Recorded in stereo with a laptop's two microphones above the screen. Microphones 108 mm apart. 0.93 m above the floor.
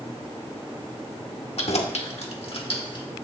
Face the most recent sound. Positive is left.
turn(degrees=50)  # may be behind; listen again after turning